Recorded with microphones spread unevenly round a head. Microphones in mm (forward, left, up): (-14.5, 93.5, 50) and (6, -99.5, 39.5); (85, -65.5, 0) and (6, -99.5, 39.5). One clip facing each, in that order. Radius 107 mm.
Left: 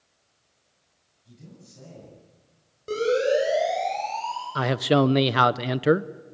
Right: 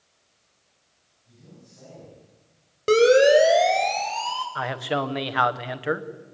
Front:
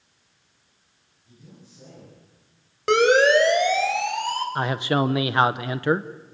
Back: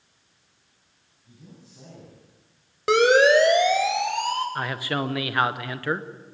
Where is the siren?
75° right, 4.5 m; by 4.5 s 95° right, 5 m.